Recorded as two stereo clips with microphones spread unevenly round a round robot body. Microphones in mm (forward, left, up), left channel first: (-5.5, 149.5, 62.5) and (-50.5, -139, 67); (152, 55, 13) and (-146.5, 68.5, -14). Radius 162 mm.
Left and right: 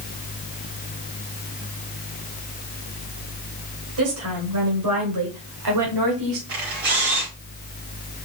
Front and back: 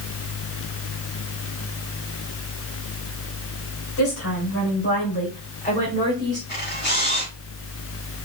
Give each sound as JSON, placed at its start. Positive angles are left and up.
{"t": 4.0, "sound": "a woman speaking", "azimuth_deg": -55, "distance_m": 3.5}
{"t": 6.5, "sound": "a camera shutter", "azimuth_deg": -70, "distance_m": 5.0}